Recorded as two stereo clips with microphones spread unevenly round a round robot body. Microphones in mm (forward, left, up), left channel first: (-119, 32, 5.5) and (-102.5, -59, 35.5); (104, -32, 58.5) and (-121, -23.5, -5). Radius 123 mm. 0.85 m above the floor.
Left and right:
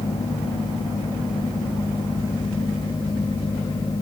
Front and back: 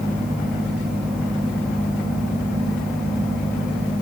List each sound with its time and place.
Only background noise.